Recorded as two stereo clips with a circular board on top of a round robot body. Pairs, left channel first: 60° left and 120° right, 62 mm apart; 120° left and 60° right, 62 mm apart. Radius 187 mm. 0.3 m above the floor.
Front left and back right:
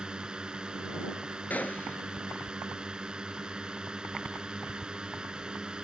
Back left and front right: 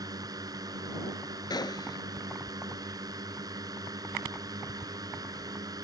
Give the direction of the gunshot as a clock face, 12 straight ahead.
8 o'clock.